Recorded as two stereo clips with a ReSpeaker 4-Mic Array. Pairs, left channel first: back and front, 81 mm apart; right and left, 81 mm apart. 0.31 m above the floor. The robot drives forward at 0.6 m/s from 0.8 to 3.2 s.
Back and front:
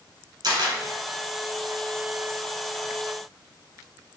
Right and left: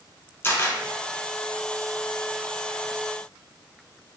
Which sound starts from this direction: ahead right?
A camera shutter, at 0.4 s.